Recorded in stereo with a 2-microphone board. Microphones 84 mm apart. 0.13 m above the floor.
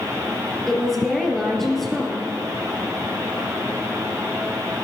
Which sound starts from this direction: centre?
A woman speaking, at 0.7 s.